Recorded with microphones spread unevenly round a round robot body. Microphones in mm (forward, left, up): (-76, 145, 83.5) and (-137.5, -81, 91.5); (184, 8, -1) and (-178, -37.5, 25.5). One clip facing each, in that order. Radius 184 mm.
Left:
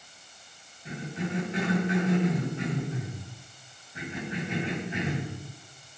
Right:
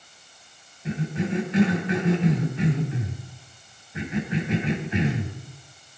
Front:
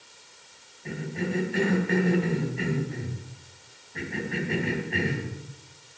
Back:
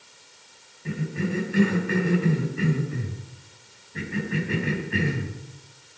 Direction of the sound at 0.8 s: 95° right.